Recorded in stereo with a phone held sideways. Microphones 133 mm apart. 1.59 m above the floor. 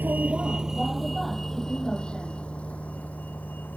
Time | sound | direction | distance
0.0 | a vehicle | 15° right (ahead or behind) | ?